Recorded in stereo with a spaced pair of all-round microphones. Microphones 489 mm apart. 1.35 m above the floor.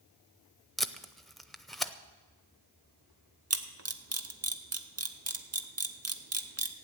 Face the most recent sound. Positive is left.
turn(degrees=-30)  # may be behind; listen again after turning